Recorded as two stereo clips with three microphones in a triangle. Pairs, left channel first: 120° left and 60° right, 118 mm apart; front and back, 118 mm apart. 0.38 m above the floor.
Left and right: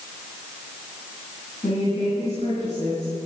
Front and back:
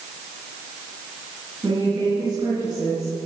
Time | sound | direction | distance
1.6 | a woman speaking | 125° left | 4 m